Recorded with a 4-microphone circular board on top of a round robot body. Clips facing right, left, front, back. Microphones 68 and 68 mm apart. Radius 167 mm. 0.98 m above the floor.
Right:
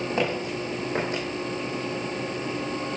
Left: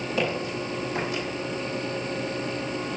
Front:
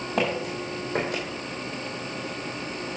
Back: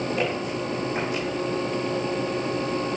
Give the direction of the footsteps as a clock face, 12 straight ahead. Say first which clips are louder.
Left 1 dB, back 1 dB; 1 o'clock.